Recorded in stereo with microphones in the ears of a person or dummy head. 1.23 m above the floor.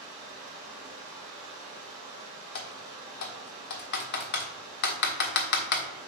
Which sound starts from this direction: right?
Running water, at 0.0 s.